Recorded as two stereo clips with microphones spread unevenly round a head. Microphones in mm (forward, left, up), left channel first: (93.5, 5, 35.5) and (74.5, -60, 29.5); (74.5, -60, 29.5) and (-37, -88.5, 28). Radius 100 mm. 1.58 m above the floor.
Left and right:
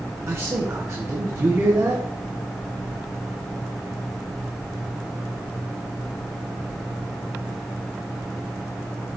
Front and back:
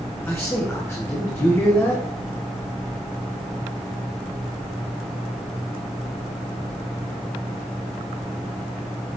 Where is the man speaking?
55° right, 1.2 m.